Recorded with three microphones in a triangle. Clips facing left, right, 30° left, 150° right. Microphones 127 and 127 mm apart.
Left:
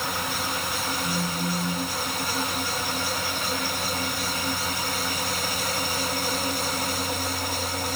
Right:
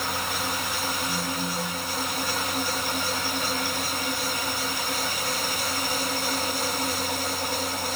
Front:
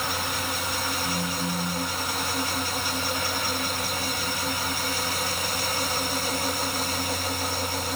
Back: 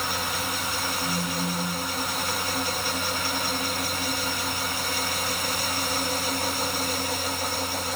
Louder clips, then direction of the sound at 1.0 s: Left 1 dB, even; 130° left.